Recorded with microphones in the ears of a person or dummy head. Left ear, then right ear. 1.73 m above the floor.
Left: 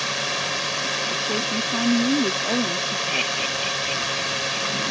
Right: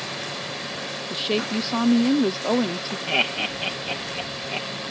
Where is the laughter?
40° right (ahead or behind).